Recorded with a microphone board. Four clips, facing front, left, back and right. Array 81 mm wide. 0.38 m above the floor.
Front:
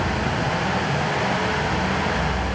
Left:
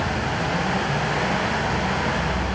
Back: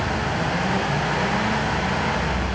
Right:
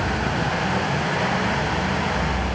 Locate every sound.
Only background noise.